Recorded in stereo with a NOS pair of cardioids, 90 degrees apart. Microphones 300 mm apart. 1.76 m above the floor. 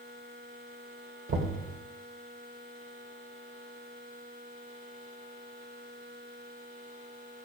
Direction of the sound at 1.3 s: 45° right.